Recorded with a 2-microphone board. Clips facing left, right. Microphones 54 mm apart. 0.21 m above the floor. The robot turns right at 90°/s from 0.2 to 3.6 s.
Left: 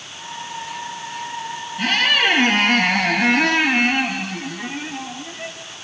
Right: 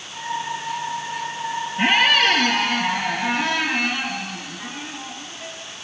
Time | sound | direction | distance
1.8 | a squeak | 30° right | 2 m